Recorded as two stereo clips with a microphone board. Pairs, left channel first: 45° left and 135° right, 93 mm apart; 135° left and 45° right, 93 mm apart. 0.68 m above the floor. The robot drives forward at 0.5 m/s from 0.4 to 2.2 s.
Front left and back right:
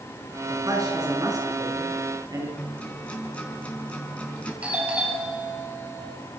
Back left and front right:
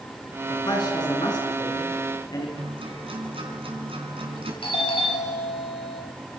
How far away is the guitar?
About 5 m.